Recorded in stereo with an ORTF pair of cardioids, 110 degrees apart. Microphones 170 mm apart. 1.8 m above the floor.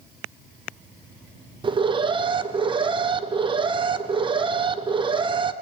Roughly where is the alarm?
Ahead right.